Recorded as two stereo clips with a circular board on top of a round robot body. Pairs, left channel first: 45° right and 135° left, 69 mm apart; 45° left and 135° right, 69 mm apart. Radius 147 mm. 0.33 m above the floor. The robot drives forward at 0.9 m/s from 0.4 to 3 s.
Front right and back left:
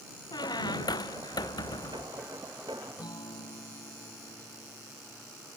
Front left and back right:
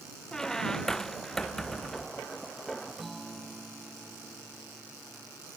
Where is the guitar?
45° right.